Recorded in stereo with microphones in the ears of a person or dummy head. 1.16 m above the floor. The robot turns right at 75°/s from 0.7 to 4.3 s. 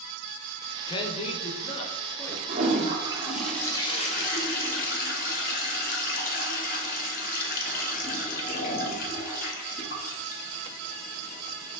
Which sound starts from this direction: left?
A man speaking, at 0.9 s.